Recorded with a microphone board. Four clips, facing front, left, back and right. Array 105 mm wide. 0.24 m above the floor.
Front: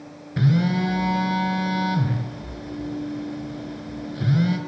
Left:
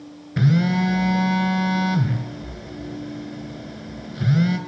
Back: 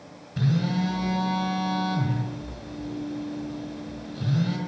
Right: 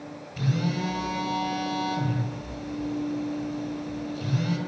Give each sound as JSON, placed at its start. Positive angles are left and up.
{"t": 0.4, "sound": "a phone buzzing", "azimuth_deg": 70, "distance_m": 1.3}